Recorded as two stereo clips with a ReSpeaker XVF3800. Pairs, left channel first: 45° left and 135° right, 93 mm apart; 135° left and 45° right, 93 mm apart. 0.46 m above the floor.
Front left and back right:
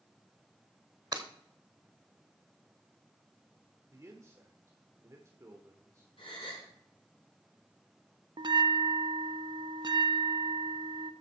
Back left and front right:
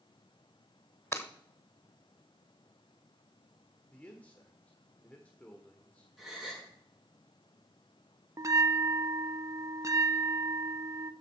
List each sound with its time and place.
1.1 s breaking glass: 170° right, 1.1 m
3.9 s a man speaking: 160° right, 1.4 m
6.2 s a gasp: 40° left, 5.5 m
8.4 s a bell: 100° right, 0.5 m